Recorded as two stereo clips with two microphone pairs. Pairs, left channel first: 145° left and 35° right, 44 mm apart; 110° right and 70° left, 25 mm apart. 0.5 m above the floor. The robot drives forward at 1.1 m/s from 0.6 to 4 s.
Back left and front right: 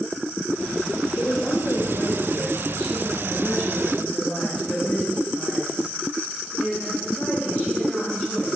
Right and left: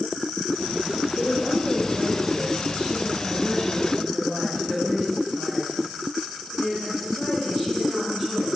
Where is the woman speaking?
160° right, 1.3 m; by 8.5 s 175° right, 4 m.